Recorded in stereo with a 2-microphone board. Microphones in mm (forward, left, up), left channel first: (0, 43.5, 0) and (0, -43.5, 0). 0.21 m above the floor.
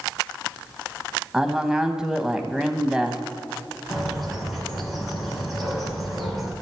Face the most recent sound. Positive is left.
turn(degrees=0)  # may be behind; listen again after turning